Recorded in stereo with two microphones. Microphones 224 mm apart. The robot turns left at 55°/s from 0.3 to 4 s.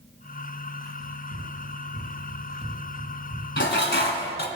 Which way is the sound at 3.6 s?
55° left (ahead or behind).